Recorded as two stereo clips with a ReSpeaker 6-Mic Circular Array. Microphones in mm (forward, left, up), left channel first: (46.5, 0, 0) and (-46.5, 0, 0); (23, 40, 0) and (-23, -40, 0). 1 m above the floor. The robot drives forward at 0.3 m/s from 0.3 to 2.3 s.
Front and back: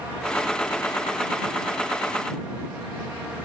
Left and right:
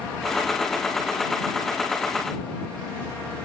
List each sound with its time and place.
Only background noise.